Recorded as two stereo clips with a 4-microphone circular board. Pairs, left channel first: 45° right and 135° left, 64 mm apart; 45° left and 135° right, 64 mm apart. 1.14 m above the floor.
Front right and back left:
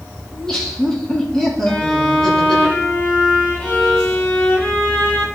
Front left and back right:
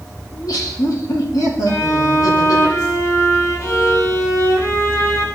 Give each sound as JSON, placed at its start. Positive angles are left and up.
{"t": 0.3, "sound": "laughter", "azimuth_deg": 35, "distance_m": 2.5}
{"t": 1.7, "sound": "a violin", "azimuth_deg": 25, "distance_m": 1.3}